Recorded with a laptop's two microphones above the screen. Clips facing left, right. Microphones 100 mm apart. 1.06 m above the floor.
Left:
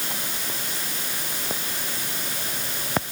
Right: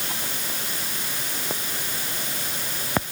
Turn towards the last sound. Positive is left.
No sound to turn to.